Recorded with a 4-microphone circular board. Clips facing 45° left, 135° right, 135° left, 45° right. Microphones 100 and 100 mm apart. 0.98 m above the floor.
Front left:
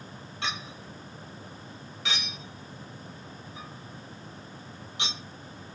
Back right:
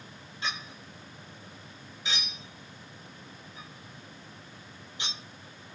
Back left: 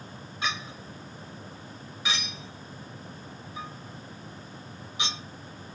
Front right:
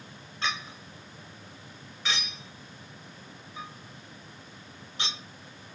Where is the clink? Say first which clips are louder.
Front left 2 dB, even; 55° left, 1.1 m.